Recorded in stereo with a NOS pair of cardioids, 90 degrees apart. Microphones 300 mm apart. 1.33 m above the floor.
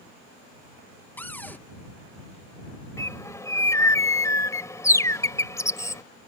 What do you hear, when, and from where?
1.2 s a cupboard door: 5° left
3.0 s a bird: 10° left